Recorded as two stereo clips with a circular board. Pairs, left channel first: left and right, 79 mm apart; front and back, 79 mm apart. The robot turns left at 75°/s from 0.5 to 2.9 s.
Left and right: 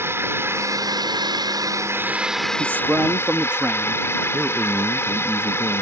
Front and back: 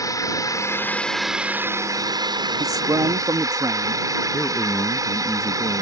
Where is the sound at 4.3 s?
15° right.